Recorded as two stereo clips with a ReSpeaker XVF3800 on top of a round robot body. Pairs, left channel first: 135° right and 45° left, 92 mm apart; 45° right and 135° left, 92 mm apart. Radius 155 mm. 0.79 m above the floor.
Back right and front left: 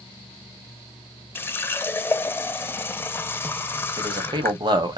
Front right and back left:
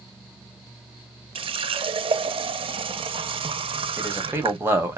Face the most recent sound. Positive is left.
turn(degrees=75)